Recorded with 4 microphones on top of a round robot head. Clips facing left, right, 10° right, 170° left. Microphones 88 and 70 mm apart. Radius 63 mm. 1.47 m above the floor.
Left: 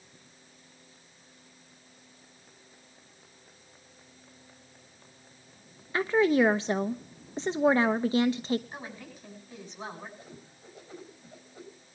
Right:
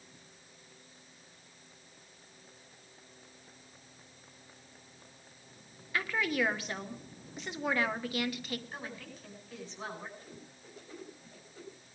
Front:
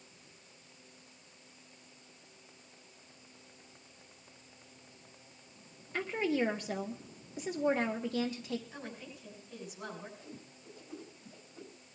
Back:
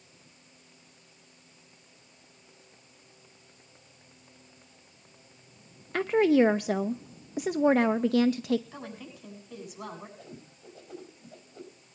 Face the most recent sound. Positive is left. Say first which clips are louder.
# left 2 dB, back 3 dB
turn(degrees=170)